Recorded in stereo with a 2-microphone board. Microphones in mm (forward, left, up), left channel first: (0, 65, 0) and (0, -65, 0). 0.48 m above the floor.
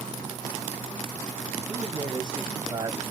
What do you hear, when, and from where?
1.7 s a man speaking: 30° right (ahead or behind), 2.5 m